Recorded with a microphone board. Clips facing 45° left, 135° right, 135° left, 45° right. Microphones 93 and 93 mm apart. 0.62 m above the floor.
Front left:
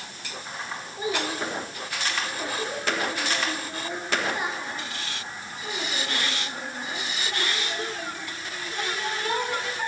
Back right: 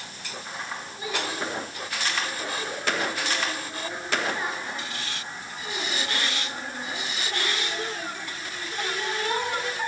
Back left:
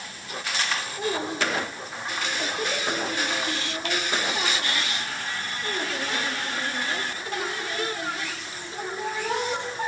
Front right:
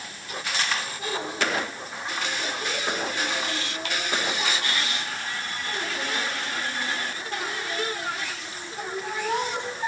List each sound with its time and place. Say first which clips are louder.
1.0 s a child speaking: front left 3 dB, back left 5 dB; 105° left, 8 m; by 9.9 s 140° left, 11.5 m